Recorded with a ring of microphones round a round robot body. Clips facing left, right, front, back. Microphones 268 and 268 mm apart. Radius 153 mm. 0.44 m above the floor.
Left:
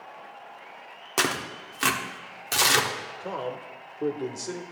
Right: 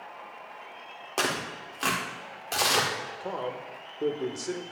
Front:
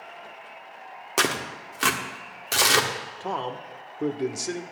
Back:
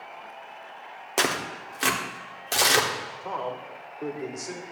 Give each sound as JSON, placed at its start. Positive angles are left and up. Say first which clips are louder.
{"t": 1.2, "sound": "tearing paper", "louder": "left 2 dB, even", "azimuth_deg": 65, "distance_m": 1.3}
{"t": 3.2, "sound": "a man speaking", "louder": "left 2 dB, front 3 dB", "azimuth_deg": 5, "distance_m": 1.0}